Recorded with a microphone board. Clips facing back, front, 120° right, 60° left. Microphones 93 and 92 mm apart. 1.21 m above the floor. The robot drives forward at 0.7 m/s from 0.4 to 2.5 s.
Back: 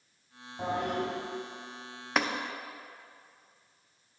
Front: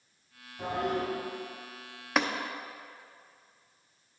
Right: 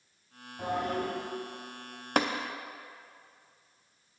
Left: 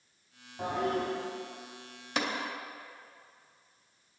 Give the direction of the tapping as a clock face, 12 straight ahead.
3 o'clock.